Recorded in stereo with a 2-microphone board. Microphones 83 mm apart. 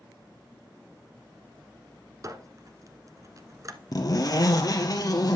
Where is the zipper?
50° left (ahead or behind), 1.7 m.